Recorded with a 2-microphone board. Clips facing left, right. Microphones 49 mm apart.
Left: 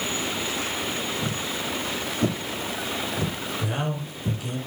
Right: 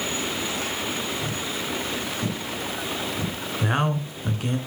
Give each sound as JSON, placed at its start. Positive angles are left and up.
{"t": 1.2, "sound": "footsteps", "side_deg": 50, "distance_m": 4.5}
{"t": 3.6, "sound": "a man speaking", "side_deg": -50, "distance_m": 2.5}